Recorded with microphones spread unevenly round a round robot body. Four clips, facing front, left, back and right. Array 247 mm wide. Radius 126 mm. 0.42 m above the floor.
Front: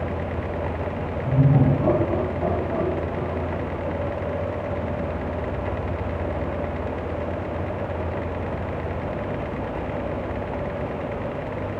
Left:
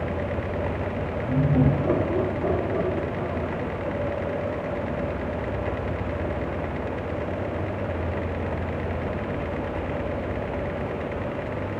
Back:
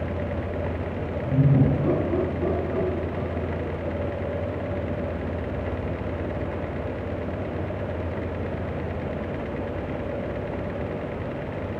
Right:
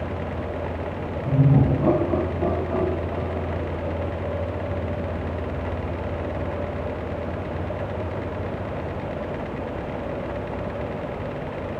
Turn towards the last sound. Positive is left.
turn(degrees=-60)